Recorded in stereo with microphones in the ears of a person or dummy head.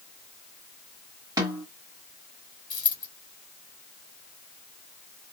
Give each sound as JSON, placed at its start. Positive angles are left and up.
{"t": 1.4, "sound": "a snare drum", "side_deg": -15, "distance_m": 1.5}
{"t": 2.7, "sound": "a dropped coin", "side_deg": 20, "distance_m": 0.9}